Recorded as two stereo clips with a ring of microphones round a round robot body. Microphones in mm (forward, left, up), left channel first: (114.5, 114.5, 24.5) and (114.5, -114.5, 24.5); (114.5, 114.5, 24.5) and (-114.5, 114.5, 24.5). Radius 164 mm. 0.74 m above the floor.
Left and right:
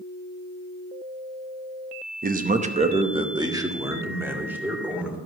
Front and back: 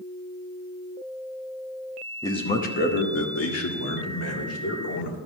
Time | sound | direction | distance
2.2 | a man speaking | 70° right | 0.9 m